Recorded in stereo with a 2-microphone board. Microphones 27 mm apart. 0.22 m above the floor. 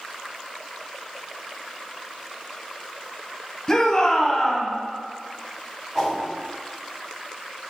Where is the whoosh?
15° right (ahead or behind), 1.5 m.